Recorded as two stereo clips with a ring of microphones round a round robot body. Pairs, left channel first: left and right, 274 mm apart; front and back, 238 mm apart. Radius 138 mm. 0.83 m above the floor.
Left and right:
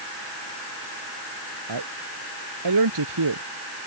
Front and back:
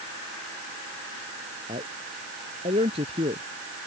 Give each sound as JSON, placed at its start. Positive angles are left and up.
{"t": 1.7, "sound": "a man speaking", "azimuth_deg": -110}